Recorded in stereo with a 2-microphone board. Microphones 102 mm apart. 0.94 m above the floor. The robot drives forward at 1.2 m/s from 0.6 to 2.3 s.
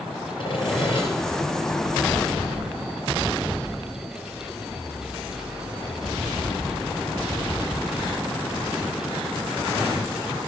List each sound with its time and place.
0.4 s sawing: 55° left (ahead or behind), 4.5 m; by 1.1 s 50° left (ahead or behind), 5 m